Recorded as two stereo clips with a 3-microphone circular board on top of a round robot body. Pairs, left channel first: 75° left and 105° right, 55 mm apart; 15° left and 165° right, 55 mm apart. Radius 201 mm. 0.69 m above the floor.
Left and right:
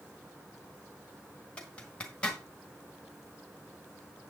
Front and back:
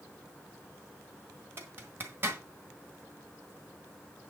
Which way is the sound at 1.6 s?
145° left.